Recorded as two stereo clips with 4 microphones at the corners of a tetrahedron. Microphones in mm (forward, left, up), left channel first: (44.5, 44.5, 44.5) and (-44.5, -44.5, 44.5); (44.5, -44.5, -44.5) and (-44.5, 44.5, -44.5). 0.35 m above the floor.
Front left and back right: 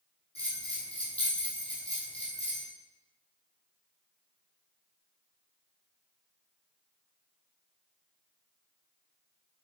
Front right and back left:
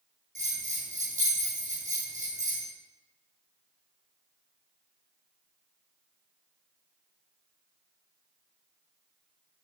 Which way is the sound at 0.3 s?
125° left.